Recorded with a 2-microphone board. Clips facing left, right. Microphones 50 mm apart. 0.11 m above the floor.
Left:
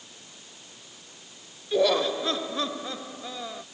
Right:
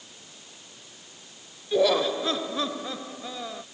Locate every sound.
1.7 s laughter: centre (ahead or behind)